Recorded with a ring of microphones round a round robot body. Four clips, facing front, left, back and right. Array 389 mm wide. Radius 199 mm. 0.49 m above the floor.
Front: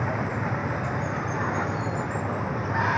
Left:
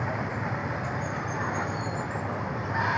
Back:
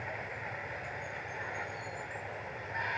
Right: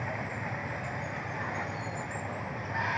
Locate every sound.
0.0 s running water: 20° left